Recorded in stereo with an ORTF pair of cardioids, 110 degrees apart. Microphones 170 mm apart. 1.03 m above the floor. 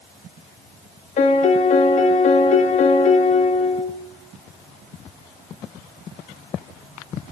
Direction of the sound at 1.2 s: 45° left.